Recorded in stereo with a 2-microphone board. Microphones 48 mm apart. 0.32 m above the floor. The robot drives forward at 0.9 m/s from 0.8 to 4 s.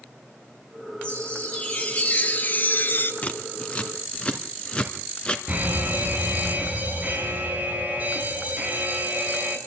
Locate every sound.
1.0 s a chime: 25° left (ahead or behind), 3.5 m; by 3.1 s 50° left (ahead or behind), 1.8 m
3.2 s scissors: 30° left (ahead or behind), 1.9 m; by 5.4 s 20° left (ahead or behind), 2.5 m
5.5 s a fire alarm: 30° right (ahead or behind), 4.5 m